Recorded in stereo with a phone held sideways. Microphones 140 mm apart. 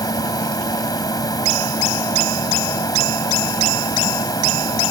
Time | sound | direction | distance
0.0 | a machine running | 25° left (ahead or behind) | ?